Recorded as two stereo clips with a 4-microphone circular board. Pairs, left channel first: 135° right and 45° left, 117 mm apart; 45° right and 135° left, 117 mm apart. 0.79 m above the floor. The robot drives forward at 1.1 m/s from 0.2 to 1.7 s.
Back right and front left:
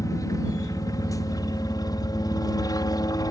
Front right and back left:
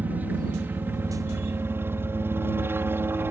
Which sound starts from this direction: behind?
A helicopter, at 0.0 s.